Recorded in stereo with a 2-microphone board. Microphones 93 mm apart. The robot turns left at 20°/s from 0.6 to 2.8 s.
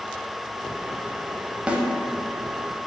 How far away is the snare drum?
About 0.5 m.